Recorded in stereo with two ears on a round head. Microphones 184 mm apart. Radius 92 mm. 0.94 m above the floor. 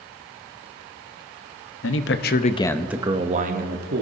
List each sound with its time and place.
1.8 s a man speaking: 70° left (ahead or behind), 1.1 m; by 4.0 s 50° right (ahead or behind), 1.5 m